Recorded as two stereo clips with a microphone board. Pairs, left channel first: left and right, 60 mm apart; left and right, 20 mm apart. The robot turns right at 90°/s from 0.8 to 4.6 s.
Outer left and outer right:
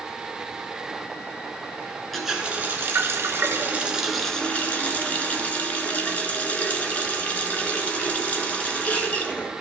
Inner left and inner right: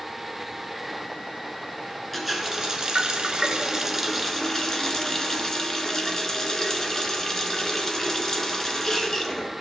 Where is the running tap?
175° left, 1.1 m; by 9.5 s 40° left, 1.1 m.